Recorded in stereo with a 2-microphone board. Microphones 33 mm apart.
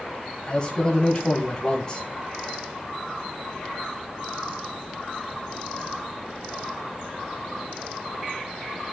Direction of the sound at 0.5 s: 25° left (ahead or behind).